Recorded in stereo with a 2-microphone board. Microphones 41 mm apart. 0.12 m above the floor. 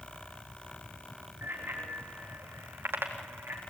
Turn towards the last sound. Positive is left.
turn(degrees=-60)  # may be behind; listen again after turning